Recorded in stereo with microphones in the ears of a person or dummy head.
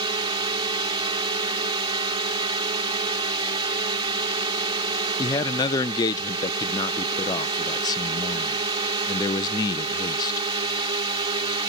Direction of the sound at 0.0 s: 30° right (ahead or behind).